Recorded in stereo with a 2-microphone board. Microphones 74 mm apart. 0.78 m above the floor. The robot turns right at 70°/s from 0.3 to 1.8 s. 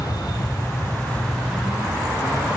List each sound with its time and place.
0.0 s an aircraft: 100° left; by 2.6 s 155° right